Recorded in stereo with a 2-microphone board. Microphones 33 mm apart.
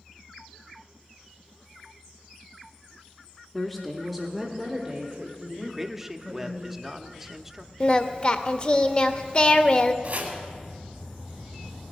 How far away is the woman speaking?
About 1.0 m.